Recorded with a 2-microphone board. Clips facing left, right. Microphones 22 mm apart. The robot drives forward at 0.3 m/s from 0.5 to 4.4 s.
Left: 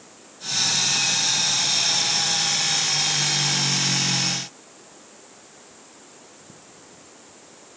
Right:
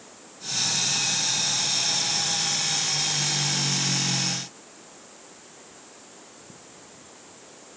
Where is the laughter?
I don't hear laughter.